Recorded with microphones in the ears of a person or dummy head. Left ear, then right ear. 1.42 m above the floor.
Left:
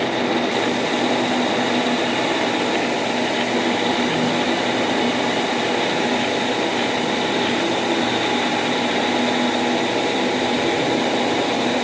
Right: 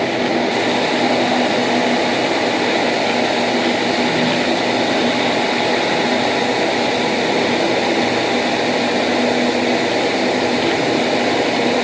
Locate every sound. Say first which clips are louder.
0.0 s a fan: right 3 dB; 30° right (ahead or behind)